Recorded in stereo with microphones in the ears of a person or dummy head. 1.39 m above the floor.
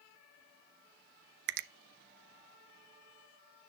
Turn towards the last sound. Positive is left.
turn(degrees=-45)  # may be behind; listen again after turning